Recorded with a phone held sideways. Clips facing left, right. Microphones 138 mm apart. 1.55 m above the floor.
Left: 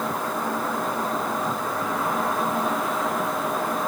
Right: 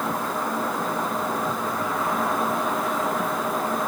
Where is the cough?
I don't hear a cough.